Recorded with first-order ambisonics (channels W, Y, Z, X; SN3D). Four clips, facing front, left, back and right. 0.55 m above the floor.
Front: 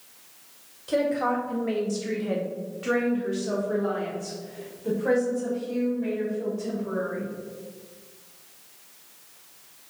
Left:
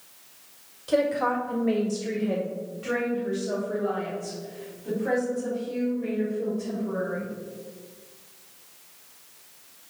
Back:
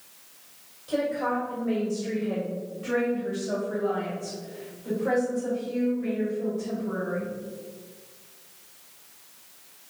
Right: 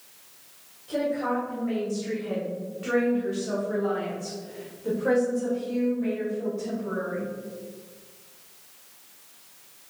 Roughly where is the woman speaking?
Ahead left.